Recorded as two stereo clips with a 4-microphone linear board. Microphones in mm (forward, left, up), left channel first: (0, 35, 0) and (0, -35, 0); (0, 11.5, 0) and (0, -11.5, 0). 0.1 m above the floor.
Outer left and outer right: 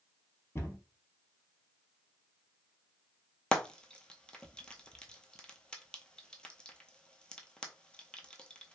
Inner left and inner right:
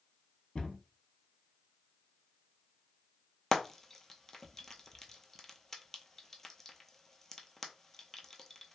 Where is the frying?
15° left (ahead or behind), 0.6 m.